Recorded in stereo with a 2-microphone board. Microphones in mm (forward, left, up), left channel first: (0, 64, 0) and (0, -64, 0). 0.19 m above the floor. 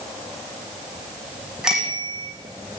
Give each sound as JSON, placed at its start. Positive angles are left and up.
{"t": 1.6, "sound": "a bicycle bell", "side_deg": -5, "distance_m": 8.0}